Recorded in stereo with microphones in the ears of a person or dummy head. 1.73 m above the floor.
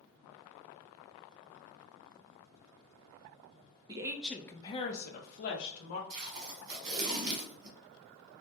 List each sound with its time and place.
3.9 s a woman speaking: 20° right (ahead or behind), 0.6 m; by 6.0 s 70° left (ahead or behind), 0.9 m
6.1 s tape being pulled: 50° right (ahead or behind), 1.3 m